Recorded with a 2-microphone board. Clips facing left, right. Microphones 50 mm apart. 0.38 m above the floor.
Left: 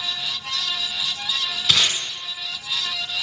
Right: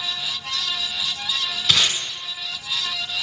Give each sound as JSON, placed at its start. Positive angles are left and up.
{"t": 1.7, "sound": "tape being pulled", "side_deg": 5, "distance_m": 1.9}